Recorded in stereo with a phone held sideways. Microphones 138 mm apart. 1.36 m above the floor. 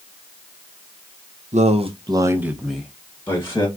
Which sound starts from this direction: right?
A man speaking, at 1.5 s.